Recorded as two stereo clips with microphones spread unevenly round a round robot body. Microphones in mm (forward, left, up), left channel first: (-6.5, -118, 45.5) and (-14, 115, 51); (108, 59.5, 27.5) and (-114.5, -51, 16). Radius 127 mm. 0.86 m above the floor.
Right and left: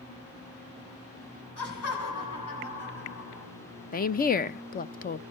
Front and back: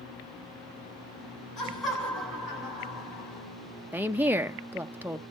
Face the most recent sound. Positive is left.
turn(degrees=-80)